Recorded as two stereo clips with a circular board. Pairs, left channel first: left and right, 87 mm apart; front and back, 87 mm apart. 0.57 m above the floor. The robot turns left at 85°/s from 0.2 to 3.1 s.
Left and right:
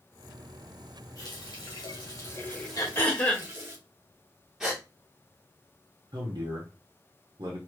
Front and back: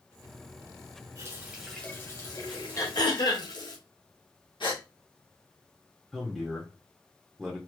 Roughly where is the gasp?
Ahead.